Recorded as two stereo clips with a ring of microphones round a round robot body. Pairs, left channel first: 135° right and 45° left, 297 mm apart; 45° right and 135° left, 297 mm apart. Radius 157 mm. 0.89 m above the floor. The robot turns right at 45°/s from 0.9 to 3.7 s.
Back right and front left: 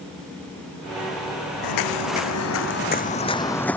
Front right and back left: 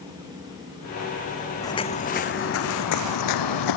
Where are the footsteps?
125° right; by 3.8 s 50° right.